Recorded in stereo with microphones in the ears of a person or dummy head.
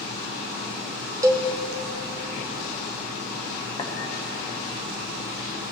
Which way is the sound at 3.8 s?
15° left (ahead or behind).